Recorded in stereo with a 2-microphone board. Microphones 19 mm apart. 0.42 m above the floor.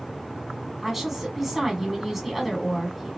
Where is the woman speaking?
20° right (ahead or behind), 1.8 m.